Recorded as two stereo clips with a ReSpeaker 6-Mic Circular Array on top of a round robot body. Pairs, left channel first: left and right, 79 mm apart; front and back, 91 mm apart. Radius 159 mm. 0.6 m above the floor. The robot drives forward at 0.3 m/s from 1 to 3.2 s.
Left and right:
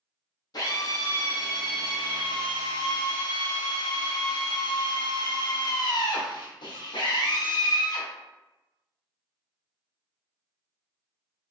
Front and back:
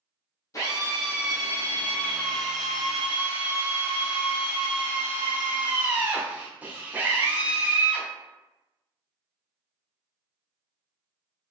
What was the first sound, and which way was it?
A drill, 50° left.